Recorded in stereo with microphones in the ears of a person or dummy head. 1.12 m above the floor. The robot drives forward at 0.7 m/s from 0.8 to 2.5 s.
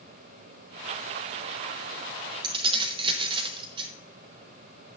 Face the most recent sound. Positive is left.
turn(degrees=-30)  # may be behind; listen again after turning